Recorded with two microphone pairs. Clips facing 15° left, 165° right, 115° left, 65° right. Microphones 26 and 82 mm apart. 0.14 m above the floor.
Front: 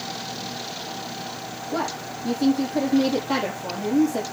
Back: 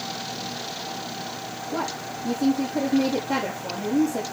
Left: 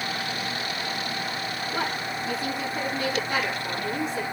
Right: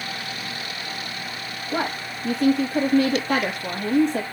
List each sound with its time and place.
1.7 s a woman speaking: 45° right, 4.5 m